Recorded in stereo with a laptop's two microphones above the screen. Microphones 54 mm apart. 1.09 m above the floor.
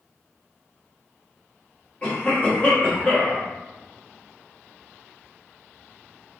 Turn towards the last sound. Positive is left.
turn(degrees=30)  # may be behind; listen again after turning